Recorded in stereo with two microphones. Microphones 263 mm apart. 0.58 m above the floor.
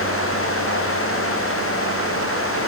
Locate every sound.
Only background noise.